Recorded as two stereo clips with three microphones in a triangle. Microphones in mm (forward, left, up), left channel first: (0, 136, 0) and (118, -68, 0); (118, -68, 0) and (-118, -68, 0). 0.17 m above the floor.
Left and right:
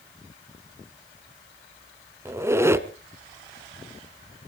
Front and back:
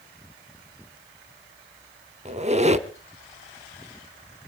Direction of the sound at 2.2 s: 135° right.